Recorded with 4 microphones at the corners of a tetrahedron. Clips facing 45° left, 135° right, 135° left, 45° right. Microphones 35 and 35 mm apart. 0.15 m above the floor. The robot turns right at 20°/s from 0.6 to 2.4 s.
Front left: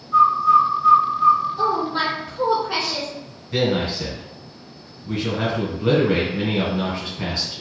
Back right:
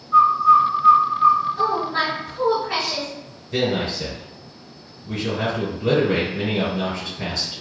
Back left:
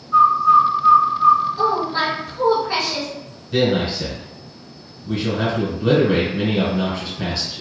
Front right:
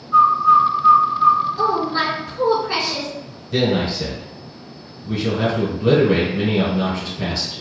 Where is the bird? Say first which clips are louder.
Back right 1 dB, even; 115° right, 0.6 m; by 1.8 s 90° right, 0.6 m.